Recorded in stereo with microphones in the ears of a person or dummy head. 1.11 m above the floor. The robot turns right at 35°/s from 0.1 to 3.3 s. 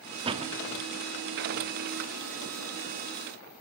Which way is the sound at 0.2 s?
30° right (ahead or behind).